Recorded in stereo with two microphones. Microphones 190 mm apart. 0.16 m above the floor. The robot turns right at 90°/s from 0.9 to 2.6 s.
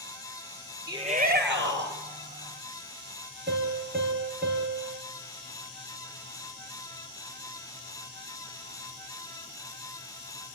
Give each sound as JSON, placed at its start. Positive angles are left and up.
{"t": 0.9, "sound": "a shout", "azimuth_deg": -170, "distance_m": 3.0}
{"t": 3.5, "sound": "a piano", "side_deg": -60, "distance_m": 4.0}